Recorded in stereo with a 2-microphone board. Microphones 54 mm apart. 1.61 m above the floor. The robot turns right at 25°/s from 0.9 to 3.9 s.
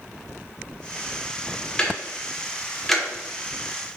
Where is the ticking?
20° left (ahead or behind), 0.6 m; by 3.0 s 5° left (ahead or behind), 0.6 m.